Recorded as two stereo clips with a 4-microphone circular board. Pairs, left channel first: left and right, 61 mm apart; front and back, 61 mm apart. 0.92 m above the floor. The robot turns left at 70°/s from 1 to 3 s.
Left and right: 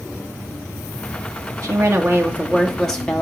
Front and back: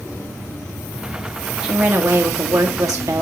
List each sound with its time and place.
1.6 s a woman speaking: 100° right, 2.0 m; by 3.2 s 165° left, 2.0 m